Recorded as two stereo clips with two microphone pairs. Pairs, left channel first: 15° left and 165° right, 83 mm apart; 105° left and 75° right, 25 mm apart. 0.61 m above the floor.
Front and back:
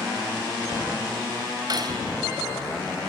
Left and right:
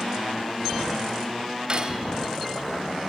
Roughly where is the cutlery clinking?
Behind right.